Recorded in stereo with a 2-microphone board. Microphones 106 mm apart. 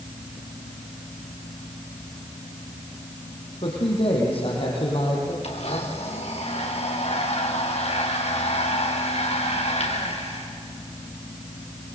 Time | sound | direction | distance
3.6 | a man speaking | 60° left (ahead or behind) | 5 m
5.4 | a blender | 70° left (ahead or behind) | 4.5 m